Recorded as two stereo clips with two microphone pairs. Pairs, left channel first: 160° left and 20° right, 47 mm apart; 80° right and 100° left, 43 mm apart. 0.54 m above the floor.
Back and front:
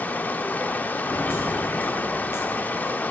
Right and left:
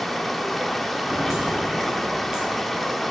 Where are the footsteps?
175° right, 2.5 m; by 3.0 s 170° left, 3.5 m.